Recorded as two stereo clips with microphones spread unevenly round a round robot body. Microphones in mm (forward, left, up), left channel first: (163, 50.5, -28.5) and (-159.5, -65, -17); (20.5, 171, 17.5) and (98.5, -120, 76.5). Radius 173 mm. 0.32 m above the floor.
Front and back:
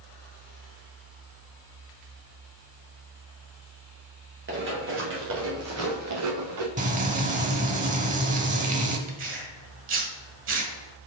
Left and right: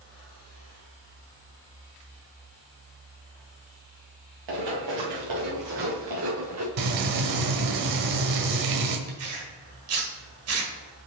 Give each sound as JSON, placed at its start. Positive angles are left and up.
{"t": 4.5, "sound": "running footsteps", "azimuth_deg": -100, "distance_m": 3.5}
{"t": 6.8, "sound": "frying", "azimuth_deg": -90, "distance_m": 1.1}
{"t": 9.1, "sound": "tearing paper", "azimuth_deg": -115, "distance_m": 1.9}